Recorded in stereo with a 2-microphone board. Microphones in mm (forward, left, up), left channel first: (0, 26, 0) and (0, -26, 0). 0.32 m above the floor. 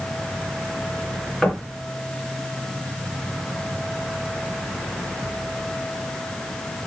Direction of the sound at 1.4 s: 5° left (ahead or behind).